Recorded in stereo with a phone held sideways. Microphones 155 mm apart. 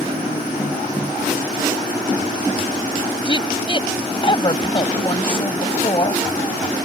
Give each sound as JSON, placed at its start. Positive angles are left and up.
{"t": 3.2, "sound": "a woman speaking", "side_deg": 35}